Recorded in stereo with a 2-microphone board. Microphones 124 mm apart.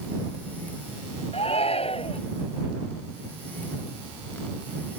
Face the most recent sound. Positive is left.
turn(degrees=55)  # may be behind; listen again after turning